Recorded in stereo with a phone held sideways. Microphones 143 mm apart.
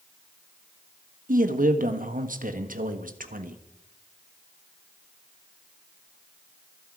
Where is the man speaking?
70° right (ahead or behind), 1.4 m.